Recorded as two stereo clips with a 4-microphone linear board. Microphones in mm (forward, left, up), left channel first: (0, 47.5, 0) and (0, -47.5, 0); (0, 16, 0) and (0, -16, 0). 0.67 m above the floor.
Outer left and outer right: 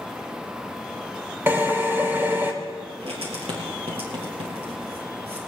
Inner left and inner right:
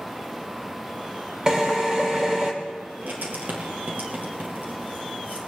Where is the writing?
85° right, 4.5 m.